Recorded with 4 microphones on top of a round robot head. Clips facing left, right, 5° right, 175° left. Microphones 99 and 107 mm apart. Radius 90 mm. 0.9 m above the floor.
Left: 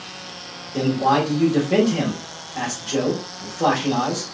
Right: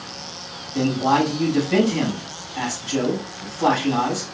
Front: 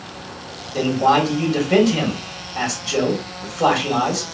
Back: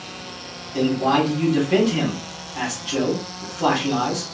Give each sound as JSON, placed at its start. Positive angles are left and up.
{"t": 0.7, "sound": "a man speaking", "azimuth_deg": 50, "distance_m": 2.0}